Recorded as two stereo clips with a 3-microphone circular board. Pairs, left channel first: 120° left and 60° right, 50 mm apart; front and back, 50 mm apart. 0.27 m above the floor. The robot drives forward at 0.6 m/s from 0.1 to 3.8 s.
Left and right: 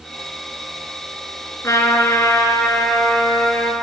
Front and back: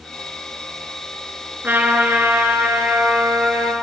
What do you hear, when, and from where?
1.6 s a trumpet: 130° left, 3 m; by 3.7 s 145° left, 4 m